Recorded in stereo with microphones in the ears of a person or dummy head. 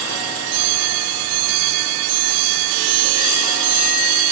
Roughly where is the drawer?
No drawer in this recording.